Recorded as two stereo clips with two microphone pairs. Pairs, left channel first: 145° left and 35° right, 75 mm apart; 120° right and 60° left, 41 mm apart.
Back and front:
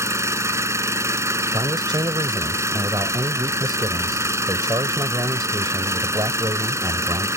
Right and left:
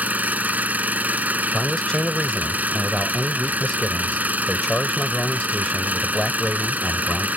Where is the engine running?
15° left.